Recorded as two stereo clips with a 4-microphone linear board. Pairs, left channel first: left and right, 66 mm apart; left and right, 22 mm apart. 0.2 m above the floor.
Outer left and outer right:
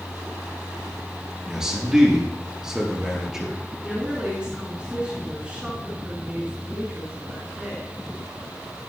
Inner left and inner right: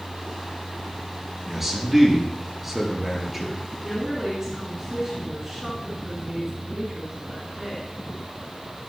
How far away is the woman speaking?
About 3 m.